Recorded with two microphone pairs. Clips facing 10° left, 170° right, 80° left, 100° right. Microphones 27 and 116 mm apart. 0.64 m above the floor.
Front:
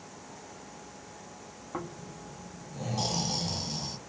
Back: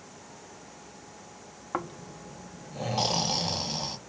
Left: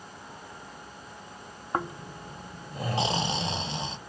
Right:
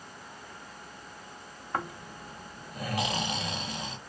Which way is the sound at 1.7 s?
140° left.